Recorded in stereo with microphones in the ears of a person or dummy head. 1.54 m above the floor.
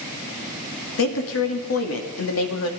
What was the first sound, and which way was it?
A woman speaking, 80° left.